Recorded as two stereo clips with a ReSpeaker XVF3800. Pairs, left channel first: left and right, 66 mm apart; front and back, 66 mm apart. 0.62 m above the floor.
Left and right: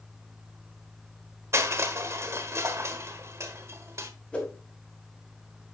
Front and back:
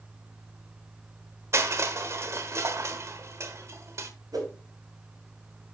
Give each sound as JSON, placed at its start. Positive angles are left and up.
{"t": 1.5, "sound": "crushing", "azimuth_deg": -135, "distance_m": 1.1}
{"t": 4.3, "sound": "a whoosh", "azimuth_deg": 165, "distance_m": 4.0}